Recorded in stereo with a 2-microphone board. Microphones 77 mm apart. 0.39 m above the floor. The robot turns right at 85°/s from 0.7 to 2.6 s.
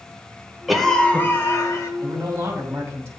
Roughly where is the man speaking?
Right.